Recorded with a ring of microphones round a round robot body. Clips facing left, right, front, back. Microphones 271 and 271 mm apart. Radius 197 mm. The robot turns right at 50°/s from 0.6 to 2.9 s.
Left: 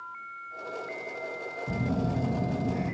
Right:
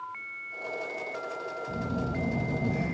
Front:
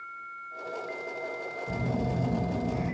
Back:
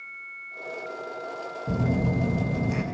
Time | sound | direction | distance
1.7 | a phone buzzing | 130° left | 0.6 m